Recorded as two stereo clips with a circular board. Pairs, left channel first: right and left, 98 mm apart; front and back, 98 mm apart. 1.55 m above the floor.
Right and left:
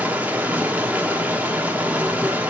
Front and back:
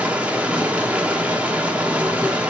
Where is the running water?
130° left, 1.1 m.